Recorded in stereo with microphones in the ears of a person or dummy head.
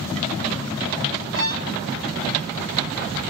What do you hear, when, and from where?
1.4 s a violin: 75° right (ahead or behind), 3 m